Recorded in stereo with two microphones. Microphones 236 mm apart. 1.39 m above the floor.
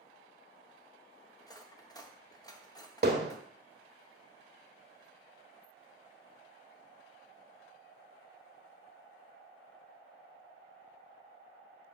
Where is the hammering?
45° right (ahead or behind), 1.5 m.